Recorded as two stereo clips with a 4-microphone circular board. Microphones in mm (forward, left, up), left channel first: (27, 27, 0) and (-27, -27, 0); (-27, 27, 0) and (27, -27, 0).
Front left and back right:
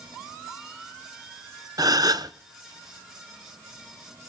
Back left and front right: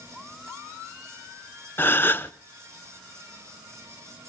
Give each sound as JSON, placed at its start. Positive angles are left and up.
{"t": 1.8, "sound": "a gasp", "azimuth_deg": -165, "distance_m": 0.8}